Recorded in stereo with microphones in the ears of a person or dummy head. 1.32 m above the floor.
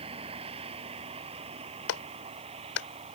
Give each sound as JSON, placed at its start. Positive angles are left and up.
{"t": 0.0, "sound": "a vehicle", "side_deg": -30}
{"t": 1.9, "sound": "a clap", "side_deg": 80}